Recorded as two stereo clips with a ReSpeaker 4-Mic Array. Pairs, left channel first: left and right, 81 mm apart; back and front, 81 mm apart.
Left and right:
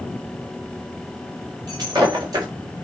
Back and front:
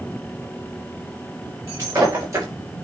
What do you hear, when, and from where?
1.7 s breaking glass: 50° right, 5.5 m